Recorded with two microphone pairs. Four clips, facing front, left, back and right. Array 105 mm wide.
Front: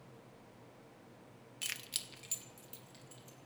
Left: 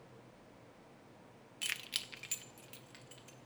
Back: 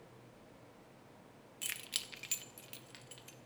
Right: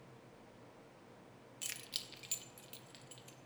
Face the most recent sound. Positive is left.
turn(degrees=155)